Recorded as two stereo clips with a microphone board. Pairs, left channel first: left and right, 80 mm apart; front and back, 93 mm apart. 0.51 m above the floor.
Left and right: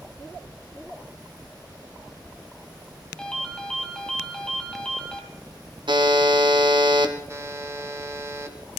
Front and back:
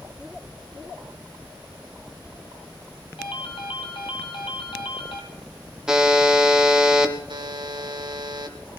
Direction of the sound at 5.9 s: 95° right.